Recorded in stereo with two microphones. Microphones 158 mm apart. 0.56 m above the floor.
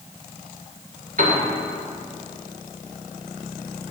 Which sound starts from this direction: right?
A piano, at 1.2 s.